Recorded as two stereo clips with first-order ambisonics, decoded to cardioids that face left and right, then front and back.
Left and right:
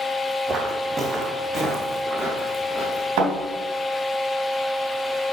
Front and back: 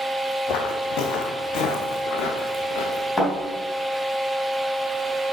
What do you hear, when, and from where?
0.5 s footsteps: 25° right, 1.6 m; by 3.1 s 15° right, 3 m
3.2 s a thud: 75° right, 3 m